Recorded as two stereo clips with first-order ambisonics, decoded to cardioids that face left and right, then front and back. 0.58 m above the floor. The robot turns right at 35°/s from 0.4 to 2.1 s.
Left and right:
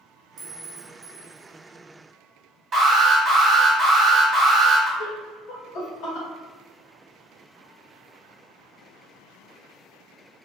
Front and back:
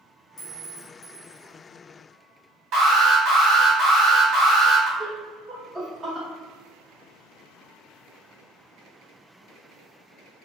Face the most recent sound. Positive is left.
turn(degrees=100)